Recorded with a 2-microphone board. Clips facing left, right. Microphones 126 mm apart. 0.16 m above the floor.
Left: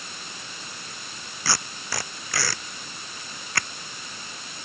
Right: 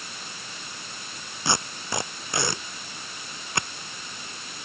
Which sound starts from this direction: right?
Tape being pulled, at 1.4 s.